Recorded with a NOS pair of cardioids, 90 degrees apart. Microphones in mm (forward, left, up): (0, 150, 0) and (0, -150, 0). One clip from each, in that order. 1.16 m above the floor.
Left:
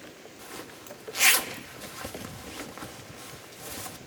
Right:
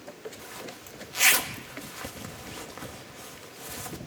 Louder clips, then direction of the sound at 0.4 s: Right 1 dB; 5° left.